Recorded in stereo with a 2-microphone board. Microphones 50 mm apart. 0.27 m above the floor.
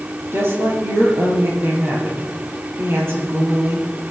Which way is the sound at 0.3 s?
55° right (ahead or behind).